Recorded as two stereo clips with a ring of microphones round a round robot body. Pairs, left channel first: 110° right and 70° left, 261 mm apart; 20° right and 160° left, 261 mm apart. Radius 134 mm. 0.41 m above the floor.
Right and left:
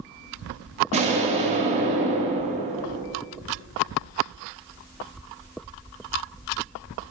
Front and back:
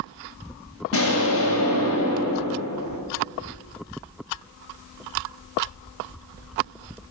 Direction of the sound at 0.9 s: 5° left.